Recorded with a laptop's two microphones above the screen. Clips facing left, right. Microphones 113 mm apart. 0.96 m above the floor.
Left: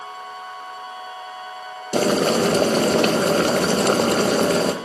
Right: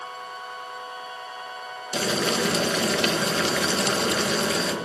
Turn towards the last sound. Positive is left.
turn(degrees=45)  # may be behind; listen again after turning